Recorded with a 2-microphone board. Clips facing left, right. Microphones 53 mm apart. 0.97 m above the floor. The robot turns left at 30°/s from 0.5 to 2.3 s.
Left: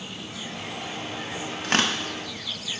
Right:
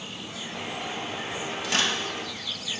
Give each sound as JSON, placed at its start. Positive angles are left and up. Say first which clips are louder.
{"t": 1.6, "sound": "tearing paper", "louder": "left 3 dB", "side_deg": 45, "distance_m": 0.8}